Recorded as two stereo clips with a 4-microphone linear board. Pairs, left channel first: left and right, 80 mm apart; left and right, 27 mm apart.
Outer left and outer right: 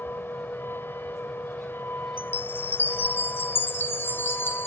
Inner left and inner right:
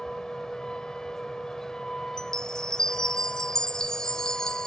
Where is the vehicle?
30° left (ahead or behind).